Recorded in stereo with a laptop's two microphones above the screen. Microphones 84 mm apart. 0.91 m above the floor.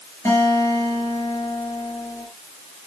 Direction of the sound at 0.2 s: 35° left (ahead or behind).